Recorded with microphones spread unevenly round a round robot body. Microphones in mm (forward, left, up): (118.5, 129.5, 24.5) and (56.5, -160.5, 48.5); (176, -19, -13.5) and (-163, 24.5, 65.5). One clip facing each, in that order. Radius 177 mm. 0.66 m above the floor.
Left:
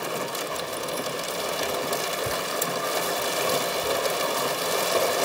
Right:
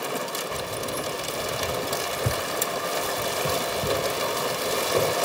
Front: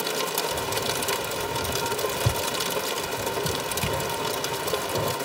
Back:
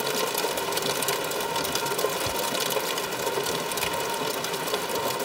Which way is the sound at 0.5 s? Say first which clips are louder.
Even, even; 40° right.